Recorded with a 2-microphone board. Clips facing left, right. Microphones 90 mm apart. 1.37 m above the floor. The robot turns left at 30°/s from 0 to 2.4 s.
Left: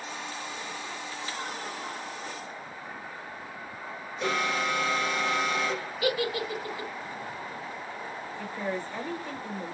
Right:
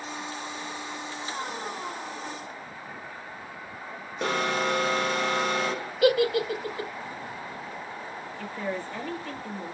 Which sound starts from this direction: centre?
A woman speaking, at 8.4 s.